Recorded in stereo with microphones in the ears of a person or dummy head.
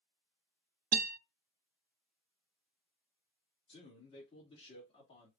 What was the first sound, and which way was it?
A guitar, 40° right (ahead or behind).